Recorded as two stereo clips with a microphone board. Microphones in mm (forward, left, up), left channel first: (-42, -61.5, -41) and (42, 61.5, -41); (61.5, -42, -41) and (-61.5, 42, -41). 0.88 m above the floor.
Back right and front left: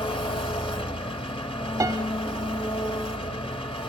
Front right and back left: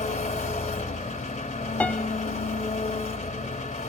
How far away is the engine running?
About 1.4 m.